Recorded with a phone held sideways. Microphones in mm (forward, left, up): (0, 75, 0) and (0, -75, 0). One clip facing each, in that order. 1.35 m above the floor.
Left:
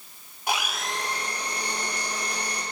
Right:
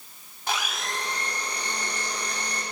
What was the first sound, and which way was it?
A blender, 10° left (ahead or behind).